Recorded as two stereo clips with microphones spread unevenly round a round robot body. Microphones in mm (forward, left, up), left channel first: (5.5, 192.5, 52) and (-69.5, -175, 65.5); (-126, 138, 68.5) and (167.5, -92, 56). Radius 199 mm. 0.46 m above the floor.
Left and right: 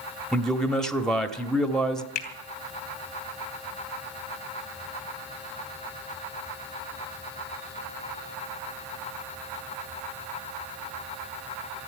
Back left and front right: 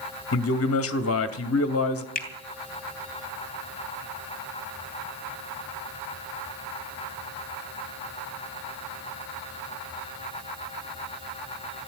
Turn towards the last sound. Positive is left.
turn(degrees=75)